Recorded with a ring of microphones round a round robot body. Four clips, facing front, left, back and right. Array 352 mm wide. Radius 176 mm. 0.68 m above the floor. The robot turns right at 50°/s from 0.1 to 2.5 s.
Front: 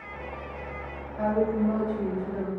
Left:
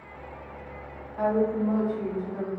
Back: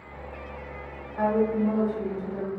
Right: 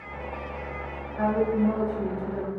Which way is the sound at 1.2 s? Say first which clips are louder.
Right 1 dB, back 1 dB; 175° left.